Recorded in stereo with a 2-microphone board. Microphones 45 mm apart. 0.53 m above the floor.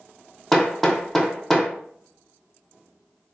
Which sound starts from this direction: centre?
Hammering, at 0.5 s.